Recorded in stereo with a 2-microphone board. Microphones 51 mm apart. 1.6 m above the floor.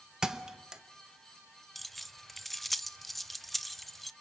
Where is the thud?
10° right (ahead or behind), 0.9 m.